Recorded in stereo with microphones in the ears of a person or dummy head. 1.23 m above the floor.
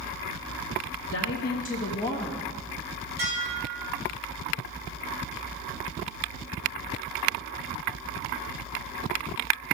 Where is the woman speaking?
65° left (ahead or behind), 1.4 m; by 2.5 s 5° right (ahead or behind), 1.2 m.